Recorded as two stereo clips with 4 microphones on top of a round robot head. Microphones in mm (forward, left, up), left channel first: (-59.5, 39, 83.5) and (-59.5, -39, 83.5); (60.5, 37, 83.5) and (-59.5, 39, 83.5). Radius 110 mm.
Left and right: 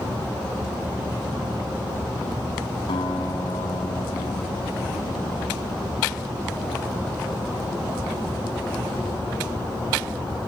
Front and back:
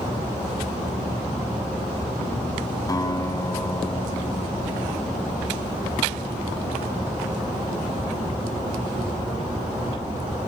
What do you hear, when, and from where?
2.9 s a guitar: 60° left, 1.5 m